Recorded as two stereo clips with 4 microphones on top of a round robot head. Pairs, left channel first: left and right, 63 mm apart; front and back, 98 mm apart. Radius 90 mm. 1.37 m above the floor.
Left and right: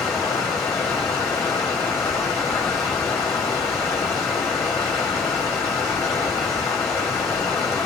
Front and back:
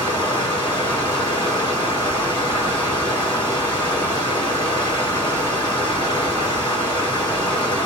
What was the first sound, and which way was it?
Running water, 45° left.